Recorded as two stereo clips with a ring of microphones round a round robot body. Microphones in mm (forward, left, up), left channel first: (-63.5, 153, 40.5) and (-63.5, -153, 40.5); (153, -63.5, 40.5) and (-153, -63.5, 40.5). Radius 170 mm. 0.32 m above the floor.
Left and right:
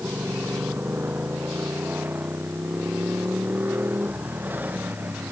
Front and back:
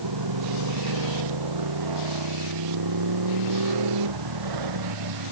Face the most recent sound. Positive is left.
turn(degrees=-175)